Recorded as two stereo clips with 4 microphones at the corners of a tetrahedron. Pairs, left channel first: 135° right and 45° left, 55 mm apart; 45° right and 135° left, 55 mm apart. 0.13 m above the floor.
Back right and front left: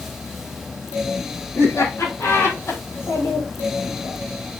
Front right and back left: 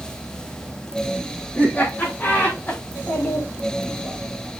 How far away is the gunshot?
No gunshot in this recording.